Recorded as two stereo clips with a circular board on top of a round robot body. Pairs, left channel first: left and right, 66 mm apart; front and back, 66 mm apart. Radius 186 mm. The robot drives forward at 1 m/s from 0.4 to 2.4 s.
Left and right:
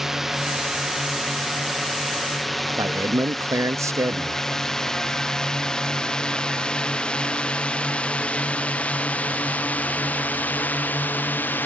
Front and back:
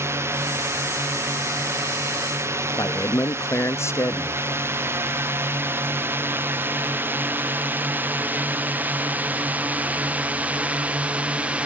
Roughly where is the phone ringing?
I don't hear a phone ringing.